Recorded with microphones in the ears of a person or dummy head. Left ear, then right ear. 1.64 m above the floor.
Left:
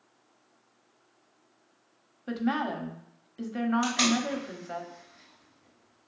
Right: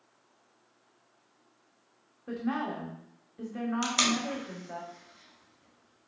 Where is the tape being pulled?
65° right (ahead or behind), 1.3 m.